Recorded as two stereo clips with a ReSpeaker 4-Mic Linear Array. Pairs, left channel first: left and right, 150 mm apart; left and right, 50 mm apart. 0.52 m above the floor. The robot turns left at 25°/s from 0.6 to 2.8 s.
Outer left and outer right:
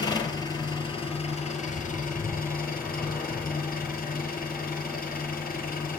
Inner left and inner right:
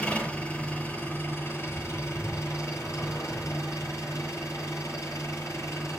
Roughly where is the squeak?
I don't hear a squeak.